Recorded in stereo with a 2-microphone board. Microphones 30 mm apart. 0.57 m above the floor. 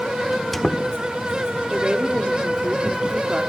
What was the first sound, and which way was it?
A squeak, 10° left (ahead or behind).